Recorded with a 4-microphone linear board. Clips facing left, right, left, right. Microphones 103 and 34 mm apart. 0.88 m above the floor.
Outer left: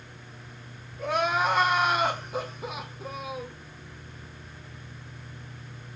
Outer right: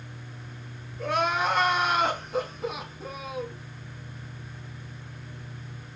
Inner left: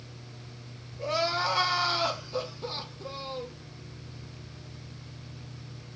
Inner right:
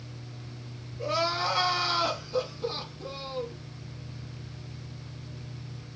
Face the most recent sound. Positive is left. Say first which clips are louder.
# even, even
turn(degrees=5)  # may be behind; listen again after turning